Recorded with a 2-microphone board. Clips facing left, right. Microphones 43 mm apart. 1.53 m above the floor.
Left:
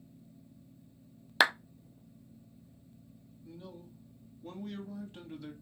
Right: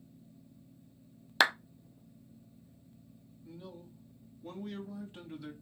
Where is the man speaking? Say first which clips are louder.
Even; 5° right (ahead or behind), 3 m.